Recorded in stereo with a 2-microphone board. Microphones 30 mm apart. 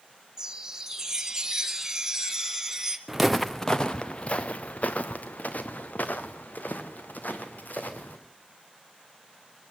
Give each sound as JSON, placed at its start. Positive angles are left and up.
{"t": 0.4, "sound": "a chime", "side_deg": -20, "distance_m": 1.4}
{"t": 3.1, "sound": "footsteps", "side_deg": -10, "distance_m": 0.8}